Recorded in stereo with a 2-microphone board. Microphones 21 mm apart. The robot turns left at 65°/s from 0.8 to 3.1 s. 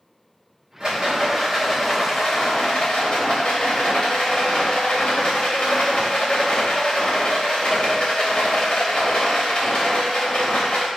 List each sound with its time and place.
0.8 s a rattle: 130° right, 2.0 m; by 10.9 s 85° left, 2.0 m